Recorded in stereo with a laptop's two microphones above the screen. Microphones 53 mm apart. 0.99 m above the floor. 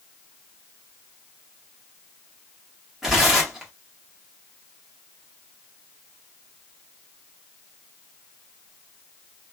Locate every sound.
3.0 s tearing paper: 5° right (ahead or behind), 1.3 m